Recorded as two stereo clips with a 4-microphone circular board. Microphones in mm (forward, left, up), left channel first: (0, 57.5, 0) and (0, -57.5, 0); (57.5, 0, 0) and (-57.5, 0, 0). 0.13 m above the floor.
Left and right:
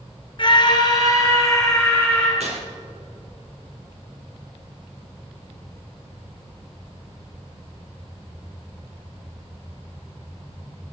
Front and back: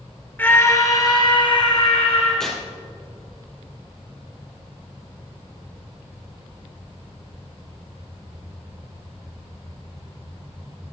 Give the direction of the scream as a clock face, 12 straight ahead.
10 o'clock.